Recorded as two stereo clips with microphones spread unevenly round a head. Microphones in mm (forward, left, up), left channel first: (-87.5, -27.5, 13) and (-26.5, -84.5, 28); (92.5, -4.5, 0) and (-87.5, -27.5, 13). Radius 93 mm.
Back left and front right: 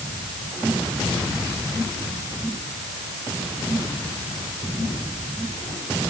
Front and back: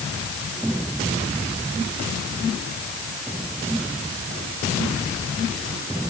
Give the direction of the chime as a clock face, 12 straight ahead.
I don't hear a chime.